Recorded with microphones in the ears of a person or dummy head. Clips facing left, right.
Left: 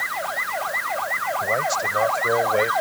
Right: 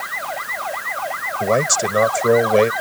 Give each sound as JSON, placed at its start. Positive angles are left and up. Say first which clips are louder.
{"t": 1.4, "sound": "a man speaking", "louder": "right 9 dB", "side_deg": -70}